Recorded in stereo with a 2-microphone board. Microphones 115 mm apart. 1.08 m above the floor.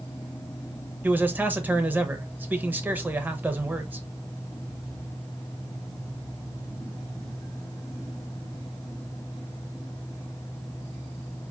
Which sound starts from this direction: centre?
A man speaking, at 1.0 s.